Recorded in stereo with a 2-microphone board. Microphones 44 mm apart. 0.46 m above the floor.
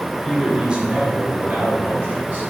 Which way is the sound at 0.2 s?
5° left (ahead or behind).